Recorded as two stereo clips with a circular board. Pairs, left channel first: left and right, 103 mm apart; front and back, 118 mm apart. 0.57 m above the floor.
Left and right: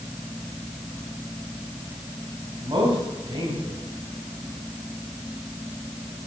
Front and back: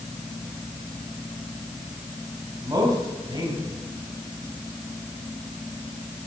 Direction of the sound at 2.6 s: 125° right.